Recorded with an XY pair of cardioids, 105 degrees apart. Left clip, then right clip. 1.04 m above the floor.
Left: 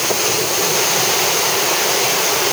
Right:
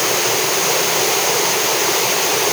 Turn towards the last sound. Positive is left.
No sound to turn to.